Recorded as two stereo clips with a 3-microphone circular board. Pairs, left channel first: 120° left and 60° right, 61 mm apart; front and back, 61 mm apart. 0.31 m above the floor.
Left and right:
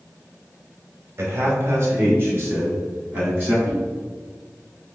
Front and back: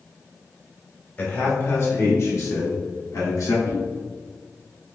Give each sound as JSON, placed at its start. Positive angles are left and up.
{"t": 1.2, "sound": "a man speaking", "azimuth_deg": -40, "distance_m": 1.3}
{"t": 3.6, "sound": "a whoosh", "azimuth_deg": -25, "distance_m": 1.7}